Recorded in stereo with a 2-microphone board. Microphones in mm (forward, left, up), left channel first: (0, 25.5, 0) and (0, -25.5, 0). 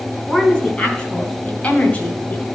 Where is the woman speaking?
15° left (ahead or behind), 4 m; by 2.4 s 35° left (ahead or behind), 1.6 m.